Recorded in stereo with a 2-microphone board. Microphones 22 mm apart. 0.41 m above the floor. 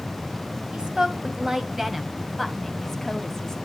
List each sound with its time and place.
0.7 s a woman speaking: 35° right (ahead or behind), 2.5 m; by 3.5 s 20° left (ahead or behind), 3 m